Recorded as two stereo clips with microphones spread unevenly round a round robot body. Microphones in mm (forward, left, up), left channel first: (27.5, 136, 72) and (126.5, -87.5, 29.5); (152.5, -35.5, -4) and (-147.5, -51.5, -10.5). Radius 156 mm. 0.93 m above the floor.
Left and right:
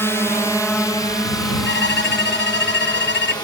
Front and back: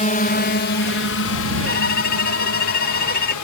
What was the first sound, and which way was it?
A drone, 25° left.